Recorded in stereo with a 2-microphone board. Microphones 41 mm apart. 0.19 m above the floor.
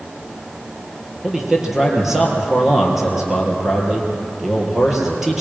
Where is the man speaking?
10° right (ahead or behind), 4 m.